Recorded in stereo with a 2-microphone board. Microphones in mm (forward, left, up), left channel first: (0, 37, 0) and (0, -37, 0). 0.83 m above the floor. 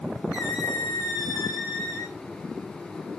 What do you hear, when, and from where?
0.3 s a squeak: 55° left (ahead or behind), 4 m